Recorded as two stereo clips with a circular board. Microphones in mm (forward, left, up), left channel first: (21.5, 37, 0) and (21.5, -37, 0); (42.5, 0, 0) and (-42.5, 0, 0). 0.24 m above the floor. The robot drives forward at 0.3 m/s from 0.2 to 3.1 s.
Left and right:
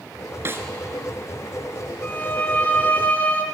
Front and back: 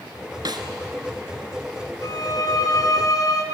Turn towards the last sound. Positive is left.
turn(degrees=30)